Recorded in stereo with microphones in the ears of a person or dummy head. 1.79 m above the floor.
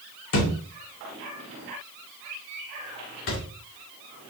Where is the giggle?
I don't hear a giggle.